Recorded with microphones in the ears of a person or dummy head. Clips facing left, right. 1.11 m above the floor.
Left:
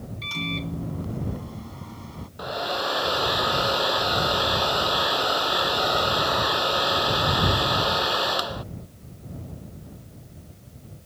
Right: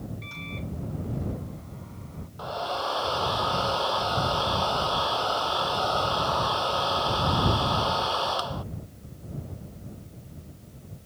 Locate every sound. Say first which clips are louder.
0.2 s a microwave: left 6 dB; 80° left
2.4 s a hair dryer: left 2 dB; 25° left (ahead or behind)